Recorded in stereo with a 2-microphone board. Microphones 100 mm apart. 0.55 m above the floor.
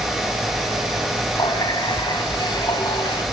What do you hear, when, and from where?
1.4 s a running tap: 55° left (ahead or behind), 2.5 m